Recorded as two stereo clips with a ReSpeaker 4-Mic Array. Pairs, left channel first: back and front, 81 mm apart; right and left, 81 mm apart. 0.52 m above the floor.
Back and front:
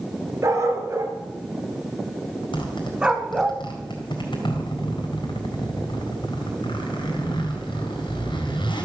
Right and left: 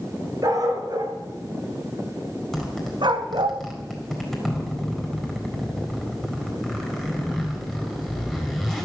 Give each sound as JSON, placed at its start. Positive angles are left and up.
{"t": 0.4, "sound": "a dog barking", "azimuth_deg": 50, "distance_m": 2.5}
{"t": 2.5, "sound": "a zipper", "azimuth_deg": 180, "distance_m": 4.0}